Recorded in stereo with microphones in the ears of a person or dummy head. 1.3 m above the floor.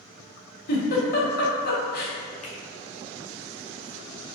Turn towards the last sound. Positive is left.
turn(degrees=25)  # may be behind; listen again after turning